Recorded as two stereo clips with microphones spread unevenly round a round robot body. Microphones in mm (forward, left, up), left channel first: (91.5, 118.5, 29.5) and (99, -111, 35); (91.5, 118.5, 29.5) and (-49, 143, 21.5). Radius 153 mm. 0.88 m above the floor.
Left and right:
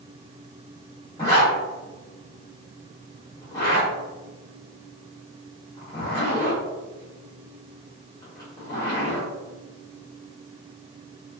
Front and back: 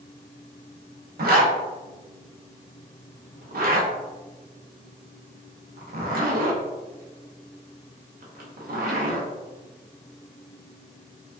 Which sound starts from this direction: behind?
A zipper, at 1.2 s.